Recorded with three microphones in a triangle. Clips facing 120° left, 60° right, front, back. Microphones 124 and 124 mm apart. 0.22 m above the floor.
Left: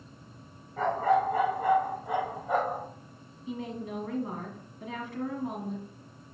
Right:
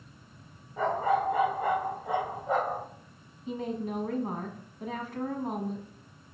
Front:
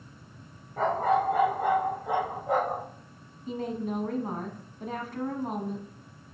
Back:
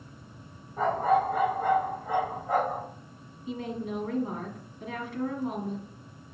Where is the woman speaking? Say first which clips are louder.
Right 3 dB, front 2 dB; 25° right, 1.4 m.